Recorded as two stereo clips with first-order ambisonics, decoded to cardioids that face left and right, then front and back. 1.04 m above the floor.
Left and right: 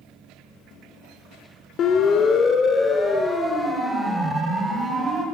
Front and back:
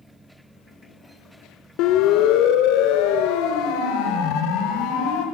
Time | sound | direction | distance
1.8 | a siren | 35° left | 3 m